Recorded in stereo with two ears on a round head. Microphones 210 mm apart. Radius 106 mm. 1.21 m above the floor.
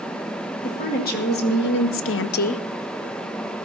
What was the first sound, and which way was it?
A woman speaking, 35° left (ahead or behind).